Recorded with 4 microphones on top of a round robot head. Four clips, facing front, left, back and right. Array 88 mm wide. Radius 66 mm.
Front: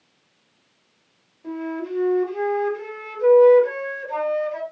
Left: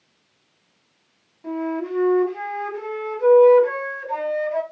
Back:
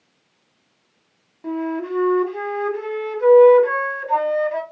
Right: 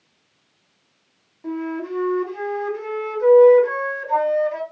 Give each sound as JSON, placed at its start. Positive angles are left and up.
{"t": 1.4, "sound": "a flute", "azimuth_deg": -175, "distance_m": 1.4}